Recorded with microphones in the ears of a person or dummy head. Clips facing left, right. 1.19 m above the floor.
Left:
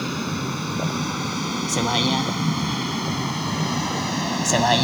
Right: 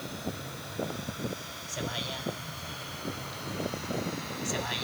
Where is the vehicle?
75° left (ahead or behind).